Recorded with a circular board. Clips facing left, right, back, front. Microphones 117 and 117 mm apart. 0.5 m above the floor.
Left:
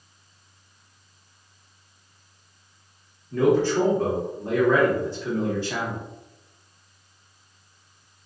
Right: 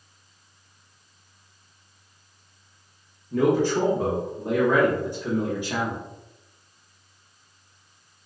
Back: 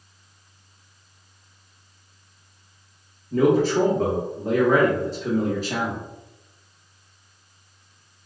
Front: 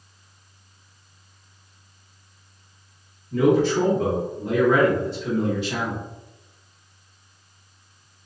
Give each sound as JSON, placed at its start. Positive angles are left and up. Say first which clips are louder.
{"t": 3.3, "sound": "a man speaking", "louder": "left 1 dB, even", "azimuth_deg": -160, "distance_m": 0.8}